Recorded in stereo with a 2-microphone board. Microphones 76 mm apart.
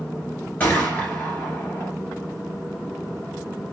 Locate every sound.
0.6 s a gunshot: 20° left (ahead or behind), 1.4 m